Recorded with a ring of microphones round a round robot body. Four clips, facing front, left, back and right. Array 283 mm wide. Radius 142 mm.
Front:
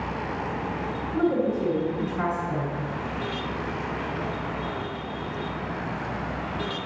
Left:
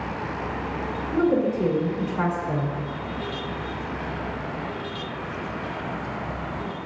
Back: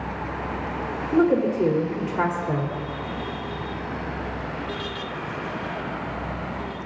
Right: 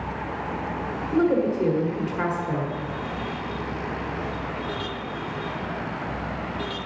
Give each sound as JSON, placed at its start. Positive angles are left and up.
{"t": 1.1, "sound": "a woman speaking", "azimuth_deg": -165, "distance_m": 2.5}